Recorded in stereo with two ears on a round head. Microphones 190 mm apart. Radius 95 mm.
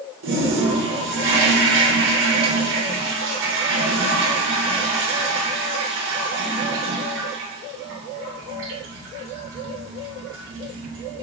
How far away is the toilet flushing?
About 2.5 m.